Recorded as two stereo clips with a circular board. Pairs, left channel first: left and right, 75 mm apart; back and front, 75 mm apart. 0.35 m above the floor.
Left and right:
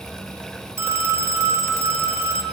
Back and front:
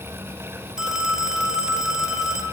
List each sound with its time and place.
0.8 s a phone ringing: 75° right, 0.9 m